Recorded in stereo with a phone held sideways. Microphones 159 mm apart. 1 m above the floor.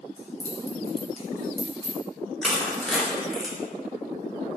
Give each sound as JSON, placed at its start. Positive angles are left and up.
{"t": 0.2, "sound": "keys jangling", "side_deg": -40, "distance_m": 0.7}
{"t": 2.4, "sound": "crushing", "side_deg": 0, "distance_m": 0.6}